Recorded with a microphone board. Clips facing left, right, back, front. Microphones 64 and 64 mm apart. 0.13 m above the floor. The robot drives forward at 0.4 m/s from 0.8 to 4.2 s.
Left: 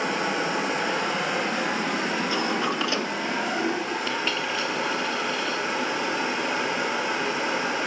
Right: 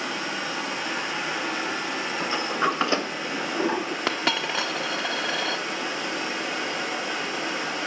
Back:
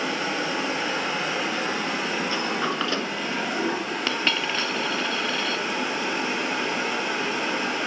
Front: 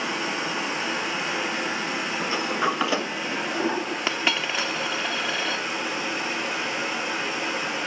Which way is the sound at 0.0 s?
125° left.